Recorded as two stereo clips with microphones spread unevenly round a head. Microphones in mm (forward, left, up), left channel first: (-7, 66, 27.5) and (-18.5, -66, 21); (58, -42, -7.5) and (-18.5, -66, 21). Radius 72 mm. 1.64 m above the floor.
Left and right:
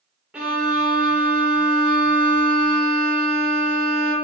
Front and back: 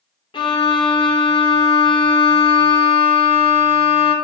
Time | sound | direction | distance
0.3 | a violin | 10° right | 0.9 m